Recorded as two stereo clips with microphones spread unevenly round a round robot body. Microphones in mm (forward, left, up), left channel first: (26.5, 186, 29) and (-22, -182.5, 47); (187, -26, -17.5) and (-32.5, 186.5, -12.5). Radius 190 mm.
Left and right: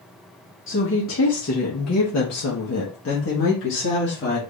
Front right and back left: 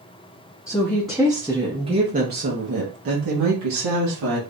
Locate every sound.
0.7 s a woman speaking: 35° left, 1.2 m; by 4.4 s 140° left, 1.5 m